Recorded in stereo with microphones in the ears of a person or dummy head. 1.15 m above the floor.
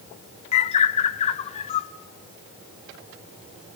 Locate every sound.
0.5 s a bird: 30° left (ahead or behind), 0.7 m